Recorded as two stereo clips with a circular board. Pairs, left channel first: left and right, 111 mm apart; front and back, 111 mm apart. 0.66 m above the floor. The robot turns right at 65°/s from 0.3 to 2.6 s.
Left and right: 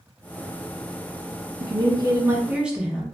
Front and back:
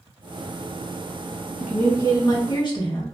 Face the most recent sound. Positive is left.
turn(degrees=-15)